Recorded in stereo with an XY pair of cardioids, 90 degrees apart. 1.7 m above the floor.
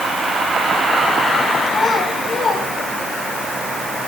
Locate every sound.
1.7 s a child speaking: 50° left, 7.5 m; by 3.4 s 60° left, 7 m